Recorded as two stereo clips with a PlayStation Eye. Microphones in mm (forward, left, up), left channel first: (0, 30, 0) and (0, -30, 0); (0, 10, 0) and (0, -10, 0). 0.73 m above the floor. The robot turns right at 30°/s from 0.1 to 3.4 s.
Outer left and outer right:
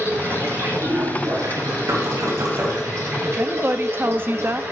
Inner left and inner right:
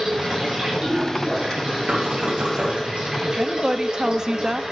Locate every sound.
0.0 s running water: 150° right, 6 m; by 4.7 s 50° right, 6 m
1.9 s knocking: 65° right (ahead or behind), 3 m; by 2.8 s 40° right (ahead or behind), 3 m
3.2 s a woman speaking: 35° right (ahead or behind), 0.6 m; by 4.6 s 40° right (ahead or behind), 0.6 m